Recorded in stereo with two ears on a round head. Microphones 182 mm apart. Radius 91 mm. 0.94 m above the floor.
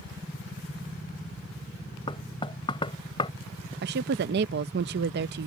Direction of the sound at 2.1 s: 25° left (ahead or behind).